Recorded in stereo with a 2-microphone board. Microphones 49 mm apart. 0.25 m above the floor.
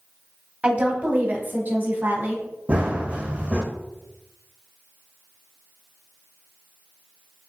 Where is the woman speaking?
25° right (ahead or behind), 1.1 m; by 2.4 s 50° right (ahead or behind), 1.8 m.